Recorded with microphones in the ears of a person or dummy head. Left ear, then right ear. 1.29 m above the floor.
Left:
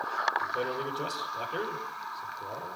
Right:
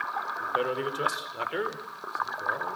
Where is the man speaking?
65° right (ahead or behind), 5 m.